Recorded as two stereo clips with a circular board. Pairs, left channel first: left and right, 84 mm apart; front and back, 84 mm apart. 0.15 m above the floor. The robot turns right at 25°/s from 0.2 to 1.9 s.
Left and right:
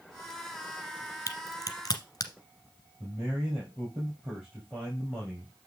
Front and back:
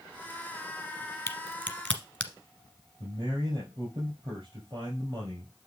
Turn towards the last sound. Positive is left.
turn(degrees=-155)